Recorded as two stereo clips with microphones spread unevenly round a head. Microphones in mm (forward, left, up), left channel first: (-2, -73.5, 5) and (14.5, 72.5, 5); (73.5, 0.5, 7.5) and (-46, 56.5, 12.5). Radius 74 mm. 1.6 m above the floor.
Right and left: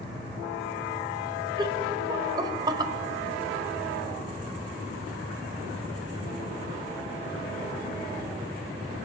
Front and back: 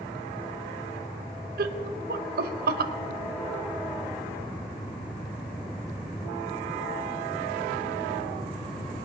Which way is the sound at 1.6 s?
150° left.